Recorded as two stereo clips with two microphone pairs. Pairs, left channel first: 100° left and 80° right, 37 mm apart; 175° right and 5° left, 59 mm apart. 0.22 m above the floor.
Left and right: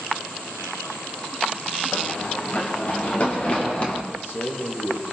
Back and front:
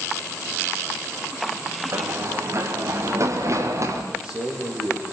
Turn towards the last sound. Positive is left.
turn(degrees=80)